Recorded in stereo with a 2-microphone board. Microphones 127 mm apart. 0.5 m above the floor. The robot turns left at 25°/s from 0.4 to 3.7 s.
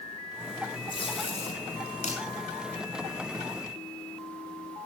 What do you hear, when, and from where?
0.9 s tape being pulled: 45° left (ahead or behind), 6 m; by 2.2 s 75° left (ahead or behind), 6 m